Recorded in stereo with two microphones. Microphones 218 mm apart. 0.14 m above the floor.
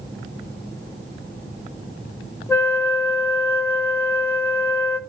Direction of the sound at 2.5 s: 10° left (ahead or behind).